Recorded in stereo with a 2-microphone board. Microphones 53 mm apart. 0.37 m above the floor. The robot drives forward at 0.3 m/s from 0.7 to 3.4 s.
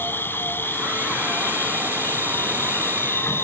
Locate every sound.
0.0 s an insect: 40° left (ahead or behind); by 3.4 s 45° left (ahead or behind)